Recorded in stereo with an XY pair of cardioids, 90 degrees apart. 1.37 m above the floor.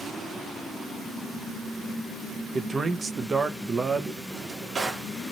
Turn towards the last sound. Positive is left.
turn(degrees=-50)